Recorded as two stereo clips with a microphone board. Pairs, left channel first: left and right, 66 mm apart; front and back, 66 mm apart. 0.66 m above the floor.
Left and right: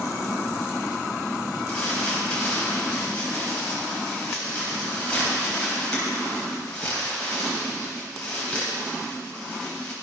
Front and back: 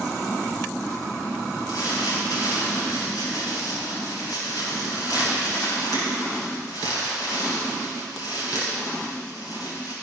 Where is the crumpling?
15° left, 4 m.